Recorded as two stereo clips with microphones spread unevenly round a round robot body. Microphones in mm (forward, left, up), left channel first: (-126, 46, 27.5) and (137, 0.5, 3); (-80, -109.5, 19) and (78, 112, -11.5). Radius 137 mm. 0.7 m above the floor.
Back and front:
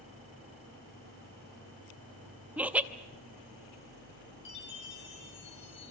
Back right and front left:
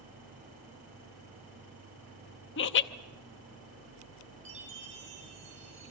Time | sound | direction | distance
2.6 | laughter | 85° right | 0.6 m
4.5 | a chime | 120° left | 6 m